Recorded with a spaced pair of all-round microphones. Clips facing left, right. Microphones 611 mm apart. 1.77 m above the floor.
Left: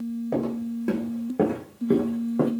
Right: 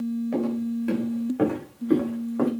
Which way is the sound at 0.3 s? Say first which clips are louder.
Left 1 dB; 65° left (ahead or behind).